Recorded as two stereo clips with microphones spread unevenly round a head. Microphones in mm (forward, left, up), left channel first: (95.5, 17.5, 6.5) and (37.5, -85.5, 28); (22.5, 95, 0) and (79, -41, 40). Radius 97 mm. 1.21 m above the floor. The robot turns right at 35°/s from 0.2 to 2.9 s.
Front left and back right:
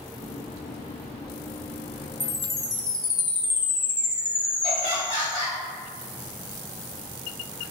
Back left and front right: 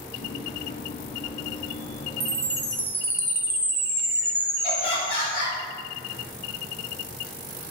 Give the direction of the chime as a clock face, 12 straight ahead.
1 o'clock.